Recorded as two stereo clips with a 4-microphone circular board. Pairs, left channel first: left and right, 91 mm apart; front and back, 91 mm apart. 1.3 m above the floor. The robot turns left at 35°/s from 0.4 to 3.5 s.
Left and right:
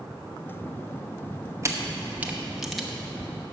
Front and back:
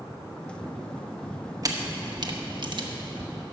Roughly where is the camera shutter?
Behind right.